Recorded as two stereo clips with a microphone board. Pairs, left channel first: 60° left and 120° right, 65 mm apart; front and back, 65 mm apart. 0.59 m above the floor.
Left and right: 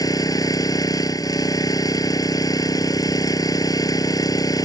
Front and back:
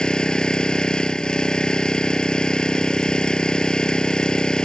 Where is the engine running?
75° left.